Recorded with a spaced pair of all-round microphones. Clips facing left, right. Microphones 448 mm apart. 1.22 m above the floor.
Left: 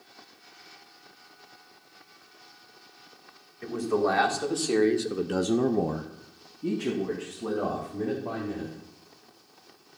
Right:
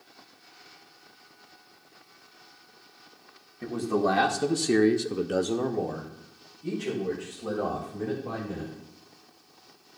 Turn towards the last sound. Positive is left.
turn(degrees=70)  # may be behind; listen again after turning